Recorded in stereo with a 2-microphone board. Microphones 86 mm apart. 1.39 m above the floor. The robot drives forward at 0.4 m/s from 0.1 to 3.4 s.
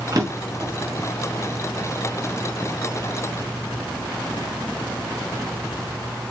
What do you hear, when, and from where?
0.1 s a drawer: 45° right (ahead or behind), 1.0 m; by 0.7 s 50° right (ahead or behind), 0.9 m